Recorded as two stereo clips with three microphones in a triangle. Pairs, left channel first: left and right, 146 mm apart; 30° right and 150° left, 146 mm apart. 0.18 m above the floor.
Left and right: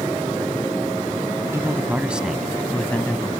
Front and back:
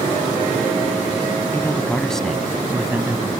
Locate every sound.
1.5 s a man speaking: 70° right; by 3.3 s 120° left